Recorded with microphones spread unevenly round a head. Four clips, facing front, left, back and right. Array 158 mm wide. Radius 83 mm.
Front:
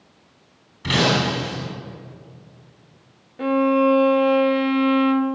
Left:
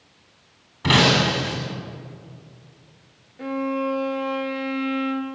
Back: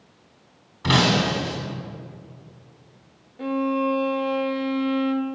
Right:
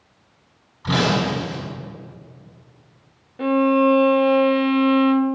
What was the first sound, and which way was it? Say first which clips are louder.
Breaking glass: left 1 dB, even; 115° left.